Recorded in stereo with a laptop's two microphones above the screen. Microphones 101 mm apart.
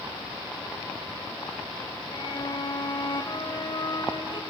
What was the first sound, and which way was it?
A violin, 45° left (ahead or behind).